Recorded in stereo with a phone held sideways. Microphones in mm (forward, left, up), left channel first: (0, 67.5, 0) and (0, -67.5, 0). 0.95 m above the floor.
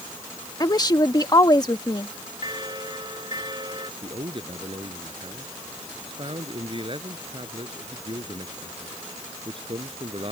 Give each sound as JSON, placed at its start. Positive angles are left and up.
{"t": 0.6, "sound": "a woman speaking", "side_deg": 30}
{"t": 2.4, "sound": "a bell", "side_deg": -35}
{"t": 4.0, "sound": "a man speaking", "side_deg": -40}